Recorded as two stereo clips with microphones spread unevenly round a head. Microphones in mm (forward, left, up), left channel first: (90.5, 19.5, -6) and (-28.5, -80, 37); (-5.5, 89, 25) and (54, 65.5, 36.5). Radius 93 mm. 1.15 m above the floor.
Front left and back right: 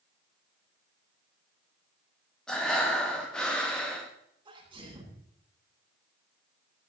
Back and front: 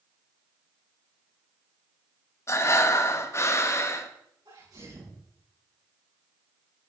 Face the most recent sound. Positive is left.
turn(degrees=-80)